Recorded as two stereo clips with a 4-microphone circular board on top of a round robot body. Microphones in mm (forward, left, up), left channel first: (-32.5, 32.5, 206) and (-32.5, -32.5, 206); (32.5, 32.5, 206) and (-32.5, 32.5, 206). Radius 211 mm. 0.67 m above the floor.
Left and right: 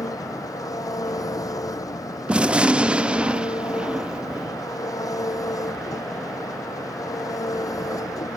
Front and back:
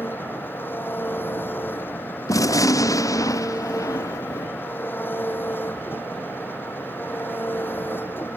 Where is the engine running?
55° left.